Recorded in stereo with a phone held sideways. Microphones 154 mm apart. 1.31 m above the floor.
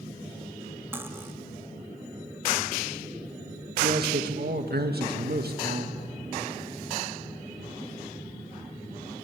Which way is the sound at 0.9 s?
15° right (ahead or behind).